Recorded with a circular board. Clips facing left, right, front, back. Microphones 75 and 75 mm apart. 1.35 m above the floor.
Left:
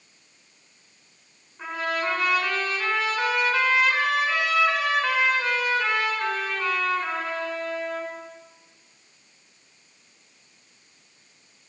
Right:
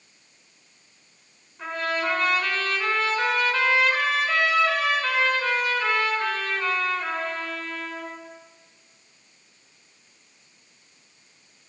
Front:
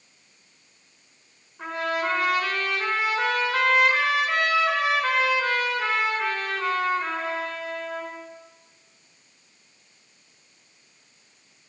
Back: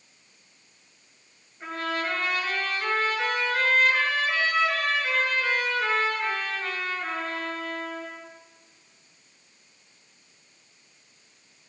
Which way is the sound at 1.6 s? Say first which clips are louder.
Even, front 3 dB; 10° left.